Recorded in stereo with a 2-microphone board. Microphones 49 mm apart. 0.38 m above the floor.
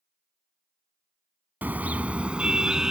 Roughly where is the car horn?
Right.